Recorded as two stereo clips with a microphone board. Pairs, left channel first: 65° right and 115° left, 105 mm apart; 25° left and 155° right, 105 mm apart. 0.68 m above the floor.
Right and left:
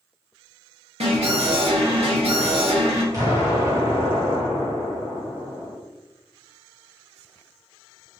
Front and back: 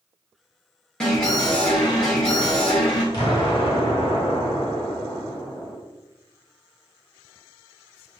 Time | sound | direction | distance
1.0 | an alarm | 105° left | 1.6 m
3.1 | an explosion | 60° left | 1.6 m